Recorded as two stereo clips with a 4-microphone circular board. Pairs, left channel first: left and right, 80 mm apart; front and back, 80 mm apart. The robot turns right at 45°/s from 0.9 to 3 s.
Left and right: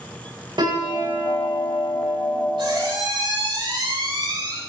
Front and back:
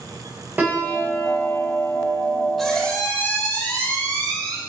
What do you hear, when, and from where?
0.6 s a piano: 110° right, 7 m; by 2.5 s 40° right, 7 m
2.6 s a squeak: 90° right, 5 m; by 4.6 s 70° right, 5 m